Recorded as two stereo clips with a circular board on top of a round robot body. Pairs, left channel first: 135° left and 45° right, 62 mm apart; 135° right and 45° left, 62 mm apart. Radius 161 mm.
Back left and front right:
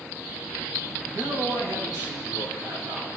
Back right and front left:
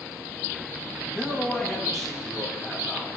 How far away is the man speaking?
About 4.5 m.